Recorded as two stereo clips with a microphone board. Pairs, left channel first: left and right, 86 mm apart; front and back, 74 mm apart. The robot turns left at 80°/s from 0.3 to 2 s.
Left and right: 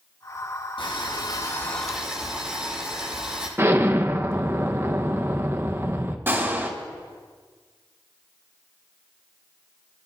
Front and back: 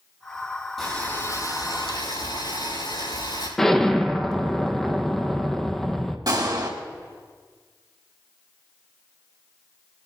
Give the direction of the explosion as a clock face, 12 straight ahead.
3 o'clock.